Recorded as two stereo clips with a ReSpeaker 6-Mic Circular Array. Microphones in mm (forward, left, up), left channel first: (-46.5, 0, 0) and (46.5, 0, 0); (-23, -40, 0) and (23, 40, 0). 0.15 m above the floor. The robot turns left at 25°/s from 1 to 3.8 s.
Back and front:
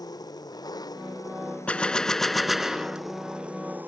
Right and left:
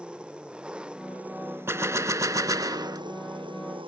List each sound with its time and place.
0.0 s an engine running: 140° left; by 3.9 s 70° left
1.7 s a gunshot: 110° left; by 3.0 s 75° left